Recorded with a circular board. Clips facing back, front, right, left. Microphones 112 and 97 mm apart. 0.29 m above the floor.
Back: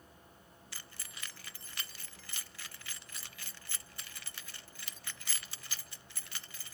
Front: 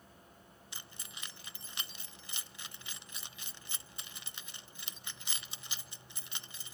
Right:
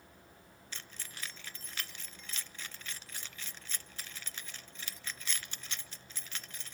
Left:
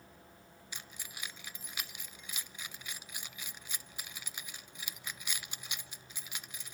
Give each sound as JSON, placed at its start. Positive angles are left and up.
{"t": 0.7, "sound": "keys jangling", "azimuth_deg": 35, "distance_m": 0.6}